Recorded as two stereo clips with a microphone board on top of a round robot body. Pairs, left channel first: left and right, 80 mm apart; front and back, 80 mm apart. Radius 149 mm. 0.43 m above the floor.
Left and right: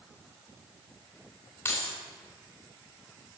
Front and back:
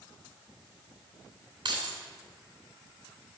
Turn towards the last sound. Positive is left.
turn(degrees=150)